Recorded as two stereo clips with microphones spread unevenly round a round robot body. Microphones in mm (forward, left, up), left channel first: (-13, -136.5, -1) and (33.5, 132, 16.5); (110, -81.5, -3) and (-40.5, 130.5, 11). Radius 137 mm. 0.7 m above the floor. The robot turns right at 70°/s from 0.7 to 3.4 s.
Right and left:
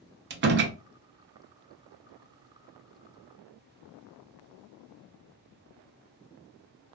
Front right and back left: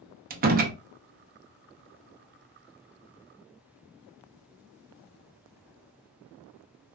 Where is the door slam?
95° left, 0.7 m; by 0.8 s 100° left, 0.7 m.